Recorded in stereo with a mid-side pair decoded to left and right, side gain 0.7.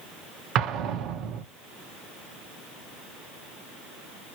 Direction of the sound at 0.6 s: 55° right.